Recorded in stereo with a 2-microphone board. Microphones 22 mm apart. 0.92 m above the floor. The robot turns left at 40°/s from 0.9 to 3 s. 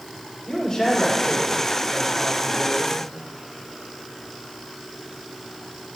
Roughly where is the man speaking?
Ahead left.